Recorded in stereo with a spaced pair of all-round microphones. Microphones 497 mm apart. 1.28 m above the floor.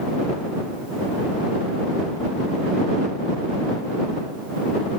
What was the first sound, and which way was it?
Only background noise.